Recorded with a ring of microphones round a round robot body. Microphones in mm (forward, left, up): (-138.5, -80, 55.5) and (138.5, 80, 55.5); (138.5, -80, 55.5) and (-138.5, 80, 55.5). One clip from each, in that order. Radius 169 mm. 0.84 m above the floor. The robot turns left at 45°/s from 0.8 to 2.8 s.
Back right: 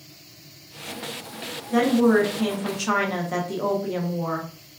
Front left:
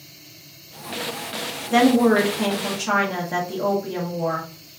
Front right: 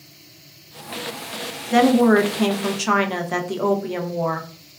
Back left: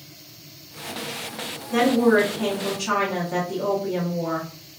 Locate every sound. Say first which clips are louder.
1.7 s a woman speaking: front left 3 dB, front right 3 dB; 20° right, 0.6 m; by 4.5 s 65° right, 0.6 m